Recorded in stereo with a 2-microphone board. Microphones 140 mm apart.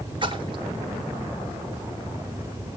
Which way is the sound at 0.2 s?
35° right (ahead or behind).